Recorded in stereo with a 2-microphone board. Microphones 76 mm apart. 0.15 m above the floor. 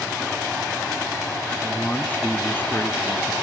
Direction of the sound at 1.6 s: 15° left (ahead or behind).